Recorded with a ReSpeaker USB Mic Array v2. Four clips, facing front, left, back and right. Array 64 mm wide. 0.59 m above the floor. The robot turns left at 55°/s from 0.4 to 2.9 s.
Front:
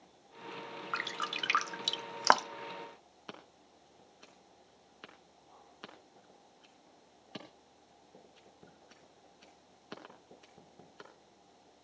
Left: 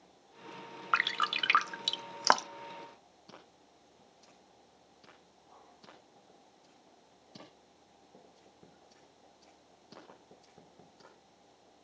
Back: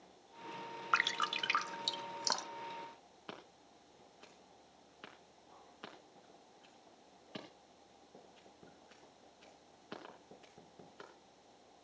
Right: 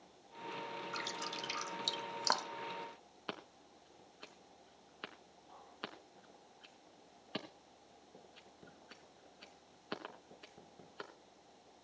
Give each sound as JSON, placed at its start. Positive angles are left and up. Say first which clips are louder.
{"t": 0.9, "sound": "dripping", "louder": "left 17 dB, back 4 dB", "azimuth_deg": 110, "distance_m": 0.6}
{"t": 3.3, "sound": "scissors", "louder": "right 8 dB, front 1 dB", "azimuth_deg": -85, "distance_m": 3.5}